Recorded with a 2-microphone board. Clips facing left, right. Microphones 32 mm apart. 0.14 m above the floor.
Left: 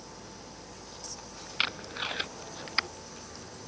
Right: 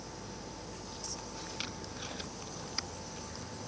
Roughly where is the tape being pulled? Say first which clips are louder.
Left 14 dB; left.